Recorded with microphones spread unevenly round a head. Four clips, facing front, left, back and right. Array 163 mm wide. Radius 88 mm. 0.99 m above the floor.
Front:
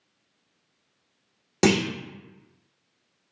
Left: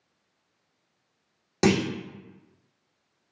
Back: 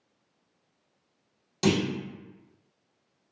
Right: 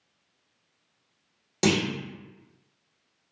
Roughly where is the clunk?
Ahead.